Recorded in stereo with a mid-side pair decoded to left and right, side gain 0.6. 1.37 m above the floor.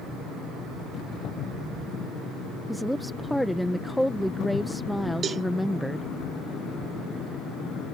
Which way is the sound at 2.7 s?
5° left.